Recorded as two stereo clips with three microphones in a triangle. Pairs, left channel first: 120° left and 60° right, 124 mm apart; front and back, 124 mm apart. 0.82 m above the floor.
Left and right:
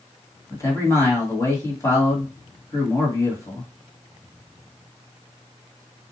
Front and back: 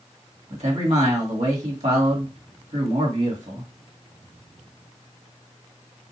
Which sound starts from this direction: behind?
A man speaking, at 0.5 s.